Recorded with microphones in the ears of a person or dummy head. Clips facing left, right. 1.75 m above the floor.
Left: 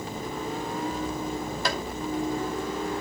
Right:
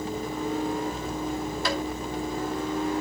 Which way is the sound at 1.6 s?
45° left (ahead or behind).